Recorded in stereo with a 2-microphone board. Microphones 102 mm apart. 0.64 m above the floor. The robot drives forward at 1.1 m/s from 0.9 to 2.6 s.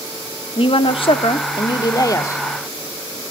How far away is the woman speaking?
About 1.1 m.